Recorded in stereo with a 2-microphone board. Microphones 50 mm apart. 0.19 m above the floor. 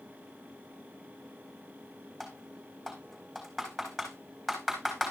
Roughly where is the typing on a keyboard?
Centre.